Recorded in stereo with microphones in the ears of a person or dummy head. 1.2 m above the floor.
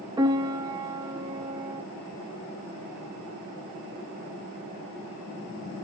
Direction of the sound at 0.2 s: 10° right (ahead or behind).